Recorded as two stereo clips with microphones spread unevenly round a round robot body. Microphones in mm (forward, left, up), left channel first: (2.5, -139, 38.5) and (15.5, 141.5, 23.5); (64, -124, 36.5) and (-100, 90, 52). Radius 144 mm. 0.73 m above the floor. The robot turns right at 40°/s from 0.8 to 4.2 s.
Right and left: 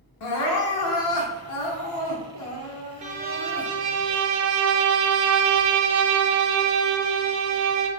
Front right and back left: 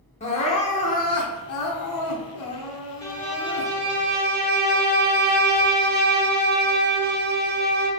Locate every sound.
0.2 s crying: 120° right, 0.7 m; by 3.7 s 5° right, 0.7 m
3.0 s a violin: 20° left, 0.6 m; by 7.9 s 70° left, 0.6 m